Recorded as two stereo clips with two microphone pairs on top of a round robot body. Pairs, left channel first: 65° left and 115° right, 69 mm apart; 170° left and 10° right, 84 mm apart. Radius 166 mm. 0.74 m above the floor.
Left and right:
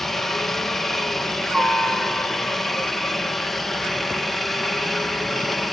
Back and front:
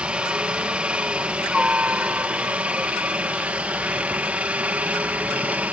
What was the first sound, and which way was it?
A helicopter, 35° left.